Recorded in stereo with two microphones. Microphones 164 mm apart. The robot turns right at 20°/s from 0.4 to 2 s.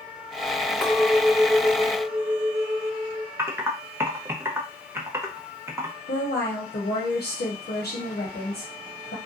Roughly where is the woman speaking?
Left.